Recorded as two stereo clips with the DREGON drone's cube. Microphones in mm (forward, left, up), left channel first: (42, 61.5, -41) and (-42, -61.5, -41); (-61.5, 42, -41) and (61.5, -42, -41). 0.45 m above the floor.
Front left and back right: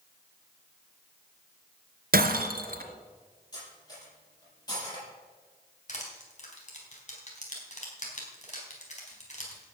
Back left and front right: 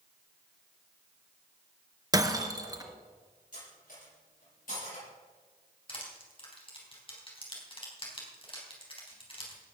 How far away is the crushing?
About 4 m.